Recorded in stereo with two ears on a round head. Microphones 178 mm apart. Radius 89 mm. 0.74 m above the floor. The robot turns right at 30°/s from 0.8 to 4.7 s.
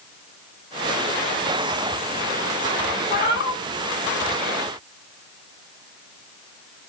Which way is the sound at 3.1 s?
50° left (ahead or behind).